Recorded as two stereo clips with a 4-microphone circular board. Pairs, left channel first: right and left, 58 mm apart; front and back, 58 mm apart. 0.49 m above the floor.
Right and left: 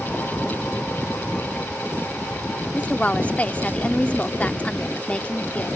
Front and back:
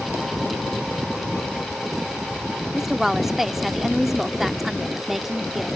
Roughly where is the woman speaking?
Right.